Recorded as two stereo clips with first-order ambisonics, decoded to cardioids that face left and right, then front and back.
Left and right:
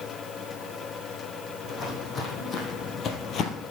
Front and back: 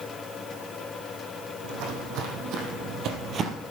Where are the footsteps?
160° left, 3 m; by 3.6 s 125° left, 1.3 m.